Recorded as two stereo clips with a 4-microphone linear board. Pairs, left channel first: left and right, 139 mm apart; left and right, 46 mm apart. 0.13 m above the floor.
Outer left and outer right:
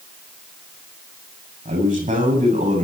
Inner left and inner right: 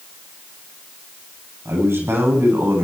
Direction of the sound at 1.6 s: 70° right (ahead or behind).